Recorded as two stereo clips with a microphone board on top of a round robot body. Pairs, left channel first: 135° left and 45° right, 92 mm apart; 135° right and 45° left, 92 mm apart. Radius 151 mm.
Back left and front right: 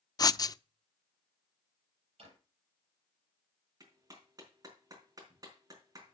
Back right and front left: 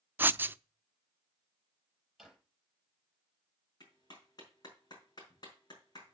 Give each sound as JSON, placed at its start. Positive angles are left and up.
{"t": 0.2, "sound": "writing", "azimuth_deg": 105, "distance_m": 0.5}
{"t": 2.2, "sound": "a drawer", "azimuth_deg": -45, "distance_m": 7.0}
{"t": 3.8, "sound": "a clap", "azimuth_deg": -95, "distance_m": 4.5}